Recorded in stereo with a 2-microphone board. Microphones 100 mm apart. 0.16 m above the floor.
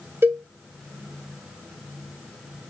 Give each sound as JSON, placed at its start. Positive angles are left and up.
{"t": 0.2, "sound": "a cowbell", "side_deg": -25, "distance_m": 0.7}